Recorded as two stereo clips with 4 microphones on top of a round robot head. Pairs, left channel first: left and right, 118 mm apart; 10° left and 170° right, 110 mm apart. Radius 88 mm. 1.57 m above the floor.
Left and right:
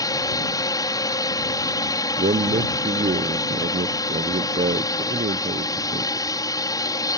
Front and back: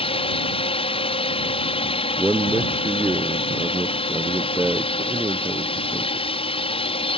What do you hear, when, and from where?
0.0 s a drone: 35° left
2.2 s a man speaking: 90° right